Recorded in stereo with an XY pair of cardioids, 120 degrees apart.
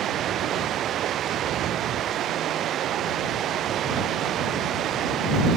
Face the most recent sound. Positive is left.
turn(degrees=-55)